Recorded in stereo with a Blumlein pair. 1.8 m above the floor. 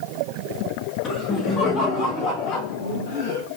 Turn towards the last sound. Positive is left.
turn(degrees=65)